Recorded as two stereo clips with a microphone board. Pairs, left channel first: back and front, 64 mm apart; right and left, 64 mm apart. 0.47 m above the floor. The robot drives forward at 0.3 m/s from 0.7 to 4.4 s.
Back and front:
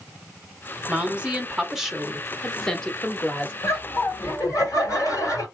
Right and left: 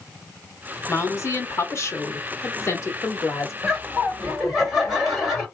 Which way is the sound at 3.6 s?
170° left.